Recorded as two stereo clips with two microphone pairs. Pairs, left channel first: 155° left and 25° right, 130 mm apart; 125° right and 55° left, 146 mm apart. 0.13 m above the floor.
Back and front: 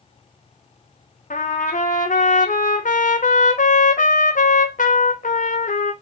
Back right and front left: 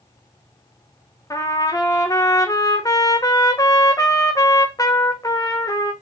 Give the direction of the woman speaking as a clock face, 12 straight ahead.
No woman speaking in this recording.